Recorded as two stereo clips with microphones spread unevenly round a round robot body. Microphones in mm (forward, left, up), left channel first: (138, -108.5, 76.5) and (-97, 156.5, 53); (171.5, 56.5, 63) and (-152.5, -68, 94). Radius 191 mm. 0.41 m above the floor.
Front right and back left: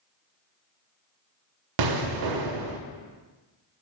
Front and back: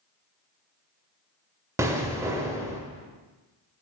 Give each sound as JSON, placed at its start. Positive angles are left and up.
{"t": 1.8, "sound": "an explosion", "azimuth_deg": 115, "distance_m": 0.7}